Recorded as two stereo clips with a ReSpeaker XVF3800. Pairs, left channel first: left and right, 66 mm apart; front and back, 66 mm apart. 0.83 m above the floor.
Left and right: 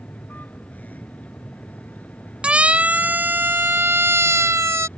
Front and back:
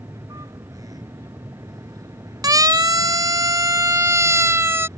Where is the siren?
165° right; by 4.9 s 130° right.